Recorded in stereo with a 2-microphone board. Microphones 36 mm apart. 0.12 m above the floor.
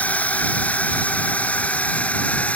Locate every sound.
0.0 s a drone: 45° left (ahead or behind); by 2.6 s 40° left (ahead or behind)